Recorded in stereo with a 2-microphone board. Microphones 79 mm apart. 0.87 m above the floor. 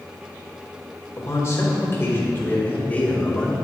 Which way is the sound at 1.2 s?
40° left (ahead or behind).